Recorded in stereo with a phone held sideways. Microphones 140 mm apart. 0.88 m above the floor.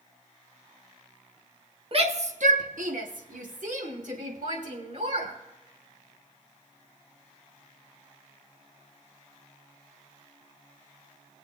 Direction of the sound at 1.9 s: 45° right (ahead or behind).